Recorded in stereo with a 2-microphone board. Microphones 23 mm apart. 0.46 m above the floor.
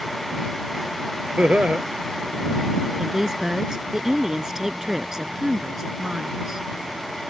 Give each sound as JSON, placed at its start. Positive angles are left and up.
{"t": 1.4, "sound": "laughter", "side_deg": -85}
{"t": 3.0, "sound": "a woman speaking", "side_deg": -25}